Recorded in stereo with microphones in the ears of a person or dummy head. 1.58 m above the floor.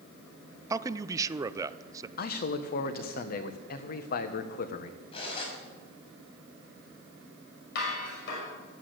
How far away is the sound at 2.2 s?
About 1.3 m.